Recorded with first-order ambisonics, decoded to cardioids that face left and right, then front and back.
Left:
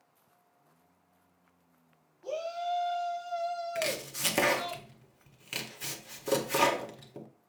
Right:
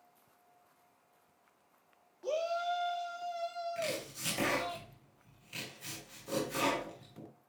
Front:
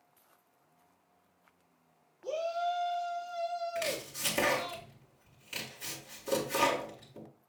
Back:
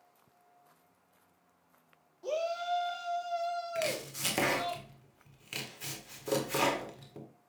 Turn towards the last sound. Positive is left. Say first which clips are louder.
# left 5 dB, back 1 dB
turn(degrees=105)